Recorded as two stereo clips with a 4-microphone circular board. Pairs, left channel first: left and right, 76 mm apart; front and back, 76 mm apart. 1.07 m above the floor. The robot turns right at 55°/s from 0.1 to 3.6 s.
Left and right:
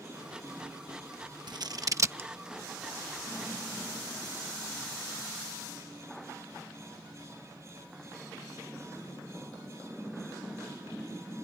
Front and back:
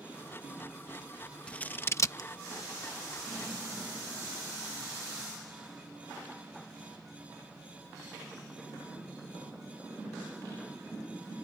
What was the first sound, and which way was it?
Scissors, 75° right.